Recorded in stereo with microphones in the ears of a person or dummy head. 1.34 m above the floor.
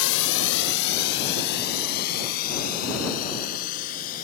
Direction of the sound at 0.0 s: 75° left (ahead or behind).